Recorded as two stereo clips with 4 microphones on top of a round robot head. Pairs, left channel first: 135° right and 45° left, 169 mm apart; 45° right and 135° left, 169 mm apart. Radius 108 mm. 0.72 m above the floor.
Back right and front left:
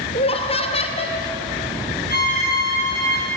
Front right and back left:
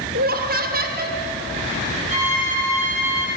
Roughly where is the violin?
Behind.